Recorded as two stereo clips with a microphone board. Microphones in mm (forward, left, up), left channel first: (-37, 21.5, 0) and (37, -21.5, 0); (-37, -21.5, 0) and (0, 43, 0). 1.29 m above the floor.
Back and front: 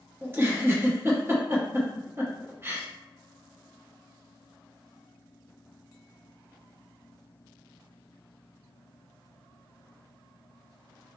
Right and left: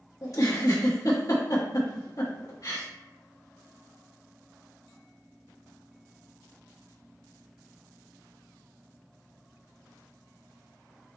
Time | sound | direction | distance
0.2 | a giggle | 90° right | 1.1 m